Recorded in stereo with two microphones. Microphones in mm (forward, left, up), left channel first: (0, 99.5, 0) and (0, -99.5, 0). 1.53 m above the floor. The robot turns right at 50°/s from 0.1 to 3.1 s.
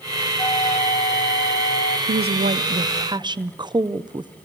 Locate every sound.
0.4 s a flute: 20° left, 0.9 m; by 2.0 s 100° left, 0.9 m
2.1 s a woman speaking: 75° right, 0.5 m; by 4.3 s 25° right, 0.5 m